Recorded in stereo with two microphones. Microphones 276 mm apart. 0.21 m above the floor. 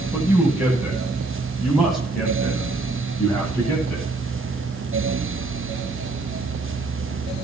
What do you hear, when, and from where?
0.1 s a man speaking: 10° right (ahead or behind), 9 m; by 4.1 s 5° left (ahead or behind), 9.5 m